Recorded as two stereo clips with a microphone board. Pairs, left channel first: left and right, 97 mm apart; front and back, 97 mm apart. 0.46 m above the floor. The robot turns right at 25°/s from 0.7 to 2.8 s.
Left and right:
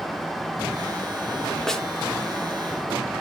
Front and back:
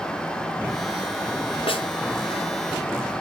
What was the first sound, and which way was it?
A snare drum, 5° left.